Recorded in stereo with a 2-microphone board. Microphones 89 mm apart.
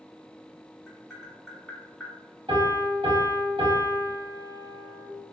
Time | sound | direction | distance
0.9 | tapping | 5° left (ahead or behind) | 1.8 m
2.5 | a piano | 65° right (ahead or behind) | 2.0 m